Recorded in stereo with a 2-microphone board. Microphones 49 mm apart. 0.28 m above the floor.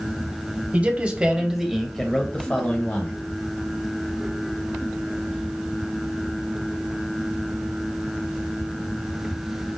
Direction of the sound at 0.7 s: 30° right (ahead or behind).